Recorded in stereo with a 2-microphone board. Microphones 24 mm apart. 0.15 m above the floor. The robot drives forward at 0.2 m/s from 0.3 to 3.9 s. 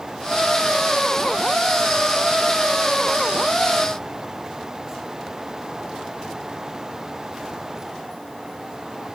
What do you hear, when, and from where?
Only background noise.